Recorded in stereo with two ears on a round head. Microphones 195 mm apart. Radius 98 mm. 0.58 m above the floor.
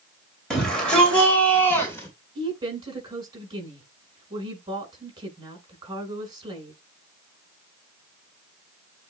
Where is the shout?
5° left (ahead or behind), 2.5 m; by 2.1 s 15° left (ahead or behind), 1.9 m.